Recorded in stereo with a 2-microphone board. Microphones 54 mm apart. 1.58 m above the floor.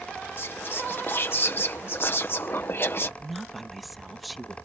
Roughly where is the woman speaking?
Centre.